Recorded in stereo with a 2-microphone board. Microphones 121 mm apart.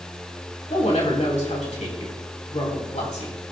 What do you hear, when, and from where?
0.7 s a woman speaking: 70° left (ahead or behind), 2.5 m